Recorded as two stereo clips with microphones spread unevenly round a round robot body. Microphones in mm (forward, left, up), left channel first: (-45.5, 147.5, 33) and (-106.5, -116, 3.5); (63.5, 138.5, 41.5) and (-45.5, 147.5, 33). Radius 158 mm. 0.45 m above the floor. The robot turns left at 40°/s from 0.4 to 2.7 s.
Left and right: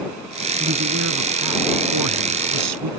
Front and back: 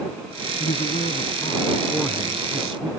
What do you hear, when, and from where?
0.6 s a man speaking: 40° right; by 2.9 s 120° right